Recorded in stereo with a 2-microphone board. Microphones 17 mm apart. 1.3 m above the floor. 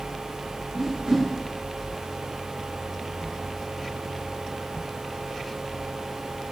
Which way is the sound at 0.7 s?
60° right (ahead or behind).